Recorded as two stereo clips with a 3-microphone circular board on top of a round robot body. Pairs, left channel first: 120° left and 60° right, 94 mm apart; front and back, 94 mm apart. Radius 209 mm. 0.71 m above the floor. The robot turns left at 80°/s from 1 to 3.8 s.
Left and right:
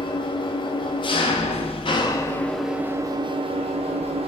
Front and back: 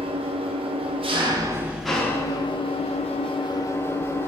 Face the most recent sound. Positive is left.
turn(degrees=-65)